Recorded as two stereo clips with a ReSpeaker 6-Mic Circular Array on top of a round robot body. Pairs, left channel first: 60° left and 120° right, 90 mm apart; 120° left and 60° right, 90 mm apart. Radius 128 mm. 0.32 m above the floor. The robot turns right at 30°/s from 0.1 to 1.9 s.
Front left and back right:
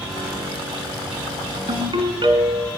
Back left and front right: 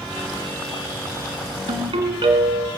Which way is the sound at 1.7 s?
90° right.